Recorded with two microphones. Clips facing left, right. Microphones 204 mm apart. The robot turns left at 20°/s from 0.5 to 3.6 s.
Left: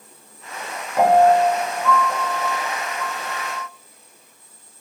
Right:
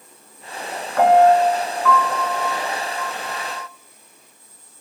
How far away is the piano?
About 0.7 m.